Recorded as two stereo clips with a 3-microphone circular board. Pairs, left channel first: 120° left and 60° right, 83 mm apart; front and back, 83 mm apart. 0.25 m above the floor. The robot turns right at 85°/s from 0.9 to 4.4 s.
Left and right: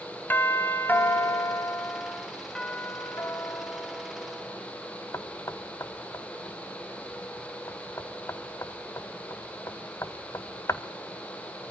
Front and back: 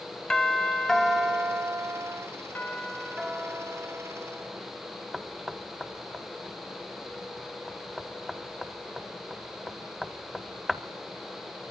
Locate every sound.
0.3 s a doorbell: 75° left, 1.7 m; by 2.3 s 165° right, 1.7 m
2.5 s a doorbell: 50° left, 1.6 m; by 4.6 s 155° right, 1.6 m
5.1 s knocking: 95° left, 0.9 m